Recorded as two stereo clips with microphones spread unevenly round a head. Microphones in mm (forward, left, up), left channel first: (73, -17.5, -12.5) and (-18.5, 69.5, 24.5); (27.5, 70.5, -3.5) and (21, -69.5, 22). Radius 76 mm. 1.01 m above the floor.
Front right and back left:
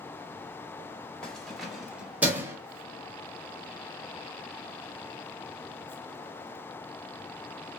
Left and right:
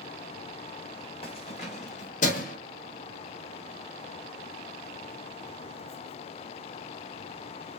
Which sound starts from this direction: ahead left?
Keys jangling, at 1.2 s.